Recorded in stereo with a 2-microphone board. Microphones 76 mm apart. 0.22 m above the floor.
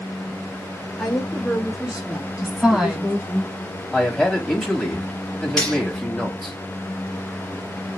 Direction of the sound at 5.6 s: 15° left (ahead or behind).